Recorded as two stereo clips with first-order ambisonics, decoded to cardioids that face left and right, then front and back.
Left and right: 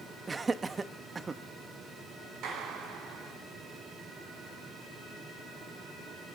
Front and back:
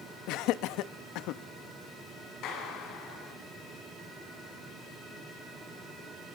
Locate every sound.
0.3 s laughter: 15° right, 0.9 m
2.4 s a clap: 45° right, 7.5 m